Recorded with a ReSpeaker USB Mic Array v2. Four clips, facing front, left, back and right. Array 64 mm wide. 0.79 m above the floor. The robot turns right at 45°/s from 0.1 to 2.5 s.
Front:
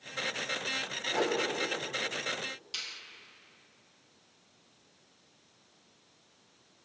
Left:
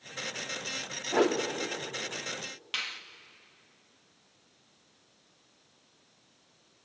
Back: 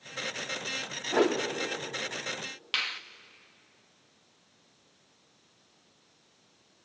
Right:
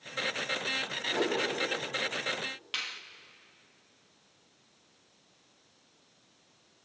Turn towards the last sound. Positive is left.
turn(degrees=175)